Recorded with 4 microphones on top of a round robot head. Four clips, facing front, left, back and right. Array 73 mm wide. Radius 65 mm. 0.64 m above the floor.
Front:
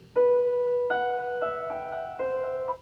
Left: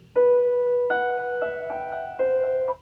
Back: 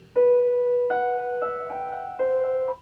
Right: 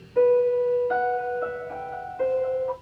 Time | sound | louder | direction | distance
0.1 | a piano | left 1 dB, back 3 dB | 115° left | 1.4 m